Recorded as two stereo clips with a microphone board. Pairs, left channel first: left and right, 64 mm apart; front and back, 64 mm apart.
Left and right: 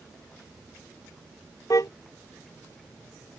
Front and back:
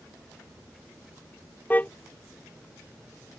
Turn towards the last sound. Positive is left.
turn(degrees=60)